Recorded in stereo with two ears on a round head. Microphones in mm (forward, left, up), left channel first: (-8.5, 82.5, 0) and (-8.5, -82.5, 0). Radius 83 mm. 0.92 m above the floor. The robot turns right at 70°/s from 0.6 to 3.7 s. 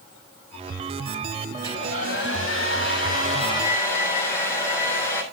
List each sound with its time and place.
1.5 s a hair dryer: 15° left, 7.5 m; by 5.2 s 165° left, 7.5 m